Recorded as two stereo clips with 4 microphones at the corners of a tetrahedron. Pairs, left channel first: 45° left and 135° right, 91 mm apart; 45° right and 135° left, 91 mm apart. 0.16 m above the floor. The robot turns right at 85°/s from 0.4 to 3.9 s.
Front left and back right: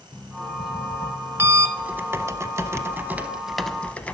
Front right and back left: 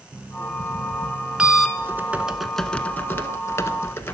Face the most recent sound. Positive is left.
turn(degrees=-15)